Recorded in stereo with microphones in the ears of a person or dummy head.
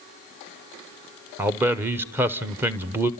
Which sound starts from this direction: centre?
A man speaking, at 1.4 s.